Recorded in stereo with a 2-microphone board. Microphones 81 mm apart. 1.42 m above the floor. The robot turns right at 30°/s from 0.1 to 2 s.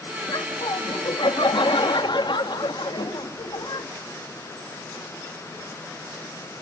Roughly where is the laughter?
Ahead left.